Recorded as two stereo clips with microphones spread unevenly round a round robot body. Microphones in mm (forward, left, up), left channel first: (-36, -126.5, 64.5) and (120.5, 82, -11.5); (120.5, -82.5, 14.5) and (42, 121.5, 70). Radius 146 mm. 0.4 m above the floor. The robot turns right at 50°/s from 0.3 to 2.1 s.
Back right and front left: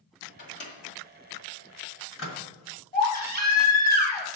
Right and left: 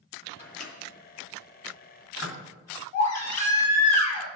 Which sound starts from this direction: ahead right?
A baby crying, at 2.9 s.